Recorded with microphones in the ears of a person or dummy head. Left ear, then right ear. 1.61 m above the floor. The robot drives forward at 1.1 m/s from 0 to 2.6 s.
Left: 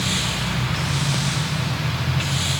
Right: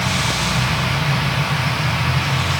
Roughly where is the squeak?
I don't hear a squeak.